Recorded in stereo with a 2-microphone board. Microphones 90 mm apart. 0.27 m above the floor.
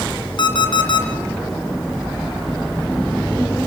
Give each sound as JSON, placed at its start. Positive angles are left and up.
{"t": 0.4, "sound": "an alarm clock", "side_deg": 55, "distance_m": 2.5}